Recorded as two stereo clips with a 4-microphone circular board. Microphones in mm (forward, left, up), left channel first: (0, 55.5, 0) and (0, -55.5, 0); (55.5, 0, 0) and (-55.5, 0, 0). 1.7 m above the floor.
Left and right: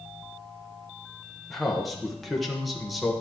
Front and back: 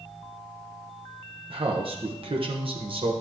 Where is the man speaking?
Straight behind, 0.9 m.